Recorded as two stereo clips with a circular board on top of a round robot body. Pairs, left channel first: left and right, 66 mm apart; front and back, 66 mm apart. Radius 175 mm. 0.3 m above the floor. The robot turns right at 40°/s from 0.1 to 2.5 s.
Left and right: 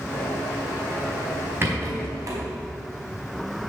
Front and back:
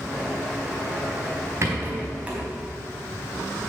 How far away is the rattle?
About 4 m.